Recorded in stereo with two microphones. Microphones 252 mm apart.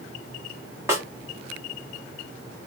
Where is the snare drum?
10° right (ahead or behind), 1.0 m.